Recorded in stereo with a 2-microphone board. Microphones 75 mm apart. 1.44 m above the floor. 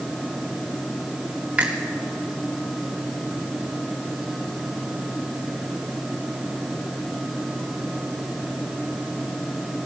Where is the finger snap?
20° right (ahead or behind), 3 m.